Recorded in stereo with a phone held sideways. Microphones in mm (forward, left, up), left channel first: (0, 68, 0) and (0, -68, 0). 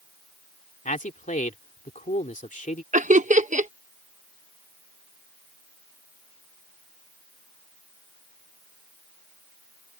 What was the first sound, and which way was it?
A man speaking, 70° left (ahead or behind).